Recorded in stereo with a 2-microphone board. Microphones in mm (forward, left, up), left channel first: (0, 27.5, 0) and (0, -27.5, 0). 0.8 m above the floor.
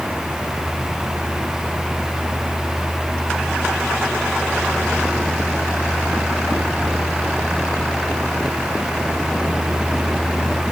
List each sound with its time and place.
Only background noise.